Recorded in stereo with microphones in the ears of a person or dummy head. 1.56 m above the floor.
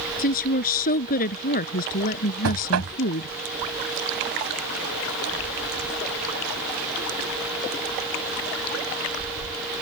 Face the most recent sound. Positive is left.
turn(degrees=-90)